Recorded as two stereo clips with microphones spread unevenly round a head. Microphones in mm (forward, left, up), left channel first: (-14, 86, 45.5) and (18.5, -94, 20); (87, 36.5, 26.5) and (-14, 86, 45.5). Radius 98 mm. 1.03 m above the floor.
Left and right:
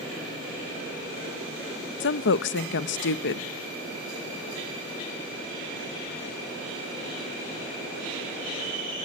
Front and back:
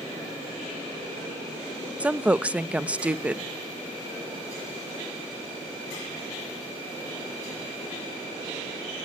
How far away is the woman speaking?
About 0.9 m.